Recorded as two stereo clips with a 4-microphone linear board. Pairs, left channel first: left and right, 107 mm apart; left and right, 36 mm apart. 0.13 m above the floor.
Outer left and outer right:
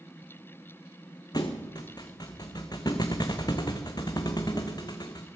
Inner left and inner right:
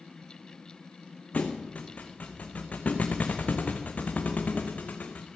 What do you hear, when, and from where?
1.3 s a thud: 45° left (ahead or behind), 1.4 m